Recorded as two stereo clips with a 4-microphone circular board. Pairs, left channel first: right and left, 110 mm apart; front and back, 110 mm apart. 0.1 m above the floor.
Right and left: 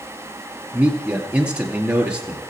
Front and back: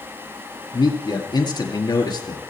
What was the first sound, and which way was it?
A man speaking, 15° left.